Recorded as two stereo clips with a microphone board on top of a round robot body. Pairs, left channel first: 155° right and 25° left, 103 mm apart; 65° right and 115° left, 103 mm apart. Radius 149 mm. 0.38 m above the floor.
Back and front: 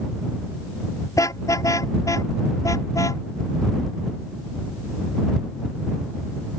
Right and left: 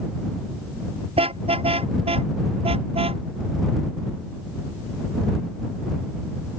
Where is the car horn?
145° left.